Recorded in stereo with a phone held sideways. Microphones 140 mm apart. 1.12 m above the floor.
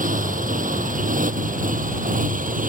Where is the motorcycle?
75° right (ahead or behind).